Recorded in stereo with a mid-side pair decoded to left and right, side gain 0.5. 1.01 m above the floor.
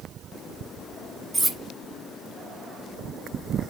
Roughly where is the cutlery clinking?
Ahead.